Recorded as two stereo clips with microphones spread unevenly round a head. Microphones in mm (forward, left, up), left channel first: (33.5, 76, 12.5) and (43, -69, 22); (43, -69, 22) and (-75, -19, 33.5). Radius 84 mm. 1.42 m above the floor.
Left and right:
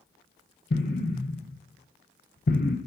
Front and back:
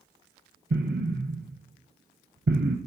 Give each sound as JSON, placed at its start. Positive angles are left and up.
{"t": 0.7, "sound": "an explosion", "azimuth_deg": 135, "distance_m": 0.5}